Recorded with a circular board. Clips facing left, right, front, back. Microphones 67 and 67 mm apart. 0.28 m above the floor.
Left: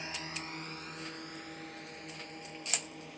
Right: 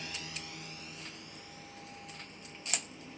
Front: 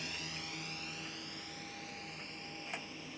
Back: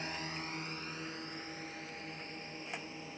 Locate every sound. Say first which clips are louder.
0.0 s a drone: left 3 dB, back 4 dB; 140° left; by 3.2 s 120° left